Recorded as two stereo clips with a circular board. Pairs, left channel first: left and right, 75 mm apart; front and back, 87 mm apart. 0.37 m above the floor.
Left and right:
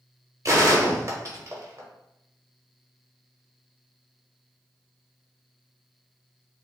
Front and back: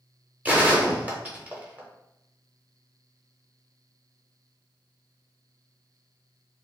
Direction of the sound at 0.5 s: 115° right.